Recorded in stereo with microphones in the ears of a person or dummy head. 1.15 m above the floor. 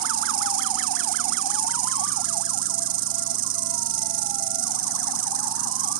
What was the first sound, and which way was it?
An insect, 50° right (ahead or behind).